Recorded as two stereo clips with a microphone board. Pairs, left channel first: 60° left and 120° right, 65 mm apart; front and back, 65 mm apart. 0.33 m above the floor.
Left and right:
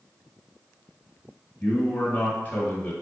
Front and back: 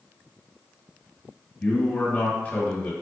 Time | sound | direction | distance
1.6 | a man speaking | 35° left | 1.1 m